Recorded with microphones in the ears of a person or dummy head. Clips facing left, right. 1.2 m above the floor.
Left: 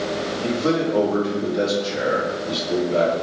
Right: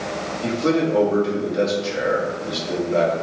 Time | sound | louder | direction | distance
0.4 | a man speaking | right 2 dB | 35° right (ahead or behind) | 1.9 m